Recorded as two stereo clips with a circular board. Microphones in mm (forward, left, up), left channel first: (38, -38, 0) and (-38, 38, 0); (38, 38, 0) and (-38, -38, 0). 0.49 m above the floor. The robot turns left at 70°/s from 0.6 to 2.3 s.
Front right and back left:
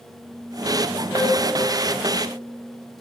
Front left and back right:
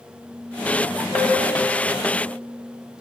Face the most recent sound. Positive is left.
turn(degrees=170)